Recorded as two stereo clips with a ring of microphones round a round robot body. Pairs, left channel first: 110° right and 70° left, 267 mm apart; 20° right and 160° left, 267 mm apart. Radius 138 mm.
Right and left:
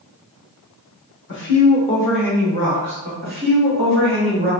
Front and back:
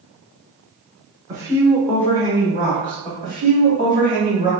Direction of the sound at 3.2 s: 25° left.